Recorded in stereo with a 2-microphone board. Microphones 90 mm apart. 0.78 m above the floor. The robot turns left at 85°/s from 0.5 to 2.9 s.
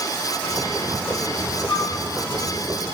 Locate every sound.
1.7 s a flute: 50° left (ahead or behind), 1.8 m; by 1.9 s 60° left (ahead or behind), 1.8 m